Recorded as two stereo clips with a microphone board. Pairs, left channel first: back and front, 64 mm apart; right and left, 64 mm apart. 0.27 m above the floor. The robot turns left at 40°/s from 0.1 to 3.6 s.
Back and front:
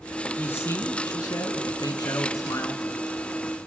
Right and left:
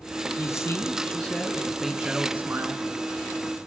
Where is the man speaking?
125° right, 3 m; by 2.8 s 135° left, 3 m.